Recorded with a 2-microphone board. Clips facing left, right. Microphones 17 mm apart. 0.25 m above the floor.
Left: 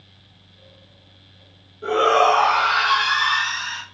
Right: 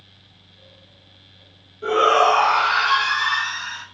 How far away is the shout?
About 3 m.